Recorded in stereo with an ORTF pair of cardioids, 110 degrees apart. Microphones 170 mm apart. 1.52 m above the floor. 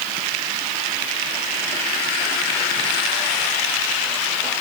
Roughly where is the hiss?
No hiss in this recording.